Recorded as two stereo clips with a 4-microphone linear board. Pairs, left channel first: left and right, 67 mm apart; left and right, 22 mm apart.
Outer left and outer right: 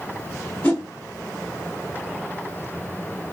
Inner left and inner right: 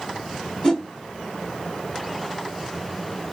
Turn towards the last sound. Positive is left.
turn(degrees=20)  # may be behind; listen again after turning